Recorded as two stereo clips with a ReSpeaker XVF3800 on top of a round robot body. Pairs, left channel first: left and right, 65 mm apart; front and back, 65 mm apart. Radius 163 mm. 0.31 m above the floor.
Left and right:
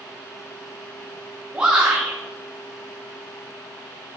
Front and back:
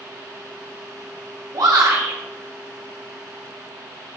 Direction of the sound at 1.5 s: 165° right.